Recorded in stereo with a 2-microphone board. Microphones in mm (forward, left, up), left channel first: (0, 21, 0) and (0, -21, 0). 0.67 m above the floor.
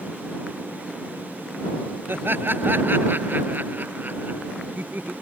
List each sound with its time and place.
2.1 s laughter: 60° right (ahead or behind); by 5.1 s 45° right (ahead or behind)